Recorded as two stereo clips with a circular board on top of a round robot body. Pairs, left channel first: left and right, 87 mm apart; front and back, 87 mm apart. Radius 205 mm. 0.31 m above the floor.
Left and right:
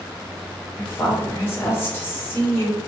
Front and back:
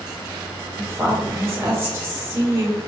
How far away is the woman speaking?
About 1.6 m.